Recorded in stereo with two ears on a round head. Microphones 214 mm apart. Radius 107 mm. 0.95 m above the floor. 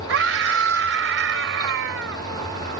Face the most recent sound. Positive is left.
turn(degrees=-55)  # may be behind; listen again after turning